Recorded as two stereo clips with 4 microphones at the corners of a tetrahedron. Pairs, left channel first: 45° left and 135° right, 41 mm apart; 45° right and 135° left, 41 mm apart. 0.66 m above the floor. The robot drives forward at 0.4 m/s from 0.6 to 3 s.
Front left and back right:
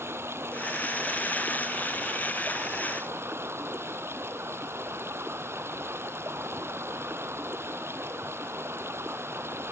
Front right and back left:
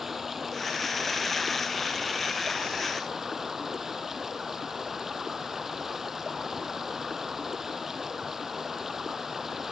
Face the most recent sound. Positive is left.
turn(degrees=-145)